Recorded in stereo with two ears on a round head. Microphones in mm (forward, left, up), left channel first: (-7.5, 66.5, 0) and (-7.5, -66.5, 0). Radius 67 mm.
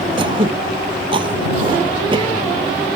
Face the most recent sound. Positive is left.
turn(degrees=-30)  # may be behind; listen again after turning